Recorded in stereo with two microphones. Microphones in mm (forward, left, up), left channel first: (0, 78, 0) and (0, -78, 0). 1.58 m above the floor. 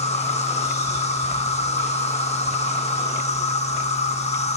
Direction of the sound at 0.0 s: 45° left (ahead or behind).